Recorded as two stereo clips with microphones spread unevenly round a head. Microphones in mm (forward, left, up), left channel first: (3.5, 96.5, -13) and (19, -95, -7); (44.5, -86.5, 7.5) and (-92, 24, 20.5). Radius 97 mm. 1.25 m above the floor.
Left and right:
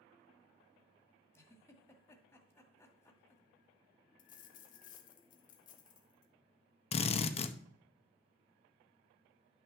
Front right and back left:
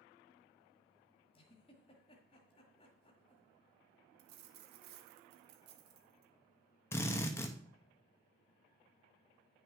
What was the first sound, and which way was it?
A giggle, 20° left.